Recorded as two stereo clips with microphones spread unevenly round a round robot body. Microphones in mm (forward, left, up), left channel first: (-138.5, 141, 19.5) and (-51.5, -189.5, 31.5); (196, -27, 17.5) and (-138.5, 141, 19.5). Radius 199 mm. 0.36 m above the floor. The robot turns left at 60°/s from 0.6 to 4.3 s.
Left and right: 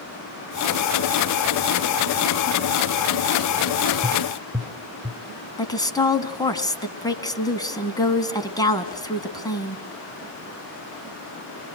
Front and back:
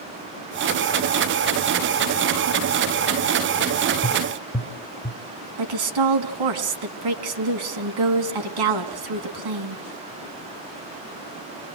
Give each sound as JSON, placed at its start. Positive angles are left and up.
{"t": 4.0, "sound": "tapping", "azimuth_deg": 55, "distance_m": 0.8}
{"t": 5.6, "sound": "a woman speaking", "azimuth_deg": -175, "distance_m": 3.0}